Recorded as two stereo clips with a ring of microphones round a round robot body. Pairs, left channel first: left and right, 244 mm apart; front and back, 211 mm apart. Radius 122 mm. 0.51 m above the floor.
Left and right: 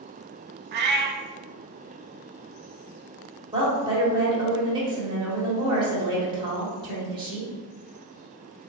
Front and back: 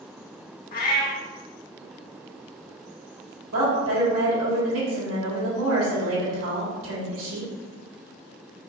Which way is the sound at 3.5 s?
160° right.